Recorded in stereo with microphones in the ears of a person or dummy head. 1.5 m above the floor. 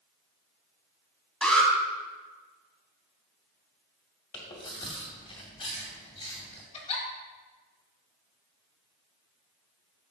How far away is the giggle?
About 2 m.